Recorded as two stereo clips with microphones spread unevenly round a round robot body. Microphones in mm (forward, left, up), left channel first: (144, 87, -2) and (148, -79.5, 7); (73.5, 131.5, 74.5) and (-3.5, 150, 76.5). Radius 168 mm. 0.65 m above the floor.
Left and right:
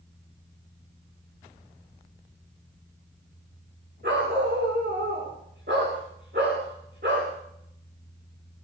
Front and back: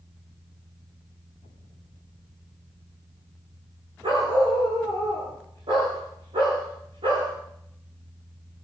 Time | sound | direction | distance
4.0 | a dog barking | 155° right | 9 m